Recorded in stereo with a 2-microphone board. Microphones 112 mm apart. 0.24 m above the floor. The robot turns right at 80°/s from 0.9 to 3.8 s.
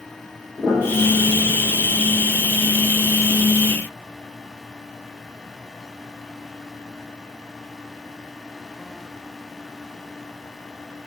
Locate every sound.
0.6 s a piano: 10° left (ahead or behind), 5.5 m; by 1.5 s 55° left (ahead or behind), 5.5 m